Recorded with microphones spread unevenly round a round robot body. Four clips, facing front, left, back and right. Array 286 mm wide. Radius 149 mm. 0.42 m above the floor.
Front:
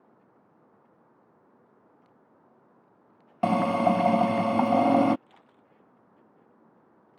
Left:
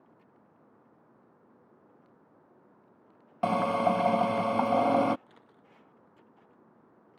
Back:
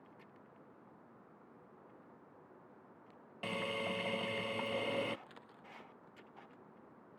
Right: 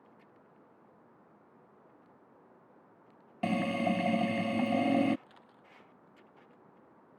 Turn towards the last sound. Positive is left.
turn(degrees=135)